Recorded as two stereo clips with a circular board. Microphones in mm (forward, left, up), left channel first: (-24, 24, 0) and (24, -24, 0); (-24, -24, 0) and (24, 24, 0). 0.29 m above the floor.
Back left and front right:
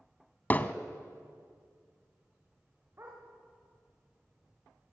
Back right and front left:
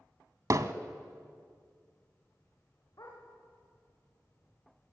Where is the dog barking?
100° right, 9.5 m.